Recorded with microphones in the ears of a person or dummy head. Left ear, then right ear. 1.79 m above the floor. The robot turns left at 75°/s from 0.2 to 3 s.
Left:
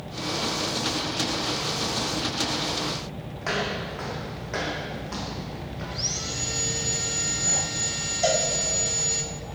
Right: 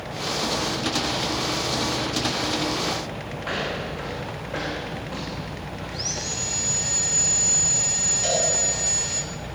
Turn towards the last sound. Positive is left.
turn(degrees=55)  # may be behind; listen again after turning